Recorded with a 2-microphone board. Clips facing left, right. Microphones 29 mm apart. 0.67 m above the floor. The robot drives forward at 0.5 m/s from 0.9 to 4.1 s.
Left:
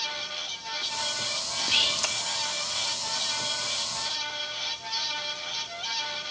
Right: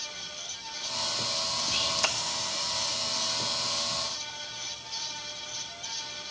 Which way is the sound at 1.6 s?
40° left (ahead or behind).